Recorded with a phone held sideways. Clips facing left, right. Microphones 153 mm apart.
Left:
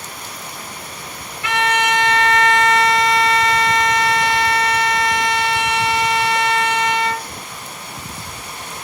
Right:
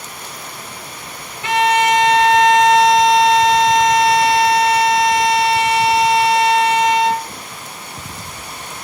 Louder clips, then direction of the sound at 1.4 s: Right 4 dB; 20° right (ahead or behind).